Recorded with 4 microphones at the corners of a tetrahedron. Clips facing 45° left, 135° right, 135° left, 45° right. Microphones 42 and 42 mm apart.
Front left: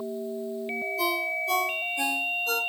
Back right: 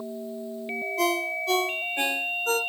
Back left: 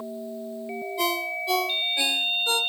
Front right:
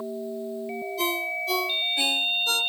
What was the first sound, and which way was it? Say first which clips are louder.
A ringtone: back right 2 dB, back left 1 dB; 160° right.